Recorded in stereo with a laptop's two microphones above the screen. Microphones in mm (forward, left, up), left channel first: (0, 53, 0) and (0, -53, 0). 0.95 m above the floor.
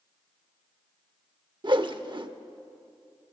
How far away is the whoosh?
About 0.8 m.